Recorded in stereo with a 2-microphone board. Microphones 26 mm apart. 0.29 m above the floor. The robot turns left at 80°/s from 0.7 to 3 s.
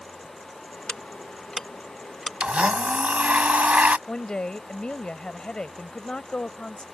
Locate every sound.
0.9 s ticking: 35° left (ahead or behind); by 2.3 s 15° right (ahead or behind)
2.4 s a blender: 45° right; by 4.0 s 95° right
4.1 s a woman speaking: 35° left (ahead or behind)